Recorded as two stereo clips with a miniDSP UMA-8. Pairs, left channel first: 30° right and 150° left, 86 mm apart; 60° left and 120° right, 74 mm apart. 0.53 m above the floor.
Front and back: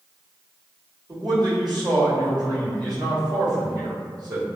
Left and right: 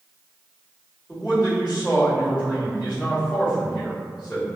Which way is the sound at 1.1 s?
135° left.